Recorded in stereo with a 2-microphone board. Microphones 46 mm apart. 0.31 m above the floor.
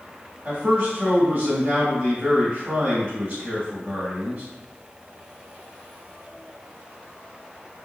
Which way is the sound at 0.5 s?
35° right (ahead or behind).